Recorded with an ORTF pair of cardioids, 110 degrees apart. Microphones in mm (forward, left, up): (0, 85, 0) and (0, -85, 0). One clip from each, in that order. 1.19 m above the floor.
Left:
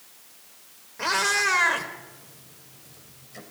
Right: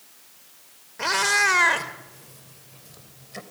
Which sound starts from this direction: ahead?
A cat meowing, at 1.0 s.